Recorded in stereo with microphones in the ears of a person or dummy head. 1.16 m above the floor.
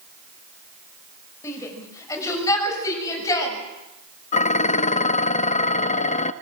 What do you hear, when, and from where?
1.4 s a shout: 15° left (ahead or behind), 6 m; by 3.6 s 20° left (ahead or behind), 7.5 m
4.3 s dishes clattering: 40° left (ahead or behind), 0.6 m